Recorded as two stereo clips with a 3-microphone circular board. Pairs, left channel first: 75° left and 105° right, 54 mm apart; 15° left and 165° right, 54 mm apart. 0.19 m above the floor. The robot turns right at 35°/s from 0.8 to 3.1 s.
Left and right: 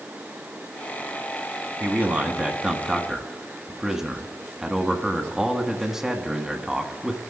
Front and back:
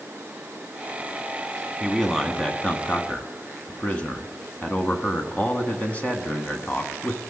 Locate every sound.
1.8 s a man speaking: 75° right, 1.4 m; by 7.2 s 30° right, 1.4 m